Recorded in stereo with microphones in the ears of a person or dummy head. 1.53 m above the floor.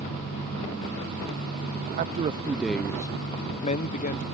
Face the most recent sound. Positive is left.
turn(degrees=45)  # may be behind; listen again after turning